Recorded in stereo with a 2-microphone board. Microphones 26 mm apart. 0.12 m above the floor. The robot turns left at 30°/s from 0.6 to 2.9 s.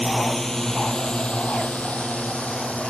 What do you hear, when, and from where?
0.0 s a drone: 10° left (ahead or behind); by 2.9 s 65° left (ahead or behind)